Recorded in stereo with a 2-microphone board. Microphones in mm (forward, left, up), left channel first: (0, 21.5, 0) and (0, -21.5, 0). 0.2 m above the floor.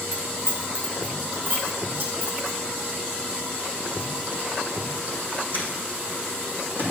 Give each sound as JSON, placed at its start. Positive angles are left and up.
{"t": 0.1, "sound": "keys jangling", "side_deg": -55, "distance_m": 3.5}